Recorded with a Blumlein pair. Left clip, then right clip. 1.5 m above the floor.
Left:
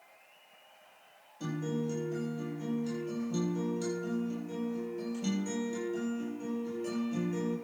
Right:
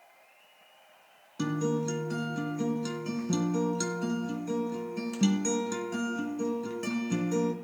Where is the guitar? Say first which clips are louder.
Right 6 dB; 45° right, 2.5 m.